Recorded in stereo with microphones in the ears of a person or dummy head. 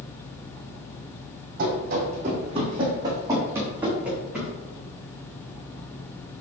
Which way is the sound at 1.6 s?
50° right (ahead or behind).